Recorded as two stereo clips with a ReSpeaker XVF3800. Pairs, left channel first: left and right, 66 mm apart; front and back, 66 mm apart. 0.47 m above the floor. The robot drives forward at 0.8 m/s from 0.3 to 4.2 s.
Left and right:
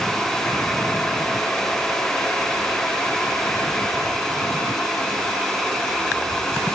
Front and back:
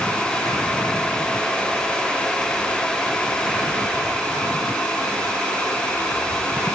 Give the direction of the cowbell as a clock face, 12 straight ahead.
No cowbell in this recording.